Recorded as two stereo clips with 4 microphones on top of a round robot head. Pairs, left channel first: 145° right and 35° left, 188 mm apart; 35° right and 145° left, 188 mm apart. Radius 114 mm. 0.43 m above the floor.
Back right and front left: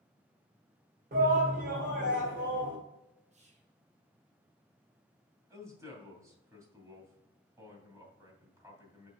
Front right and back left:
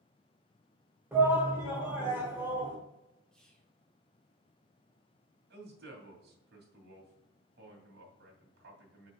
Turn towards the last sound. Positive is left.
turn(degrees=110)